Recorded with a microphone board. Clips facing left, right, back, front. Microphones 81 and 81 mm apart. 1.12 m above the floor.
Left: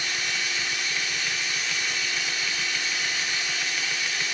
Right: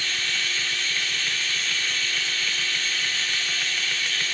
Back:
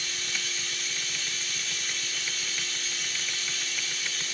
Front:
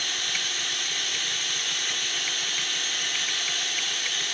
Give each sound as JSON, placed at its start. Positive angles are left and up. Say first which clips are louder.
{"t": 0.0, "sound": "running water", "louder": "even, front 3 dB", "azimuth_deg": 20, "distance_m": 1.1}